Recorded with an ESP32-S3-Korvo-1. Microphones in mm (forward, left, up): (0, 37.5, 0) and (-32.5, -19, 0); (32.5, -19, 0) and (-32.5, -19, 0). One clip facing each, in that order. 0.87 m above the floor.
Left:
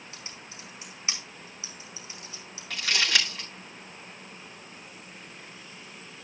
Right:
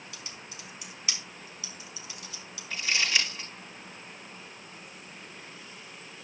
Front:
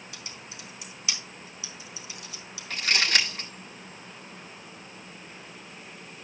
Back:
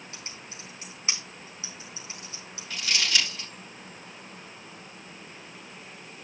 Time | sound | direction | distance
0.1 | typing on a keyboard | 120° left | 3.5 m
2.7 | crumpling | 40° left | 6.5 m